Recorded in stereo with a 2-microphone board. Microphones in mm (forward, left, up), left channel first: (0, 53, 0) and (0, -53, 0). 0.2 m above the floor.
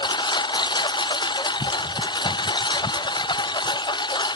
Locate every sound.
0.0 s a lawn mower: 45° left (ahead or behind)